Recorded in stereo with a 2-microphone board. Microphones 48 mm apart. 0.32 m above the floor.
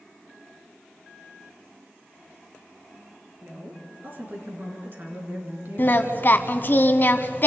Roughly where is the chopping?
No chopping in this recording.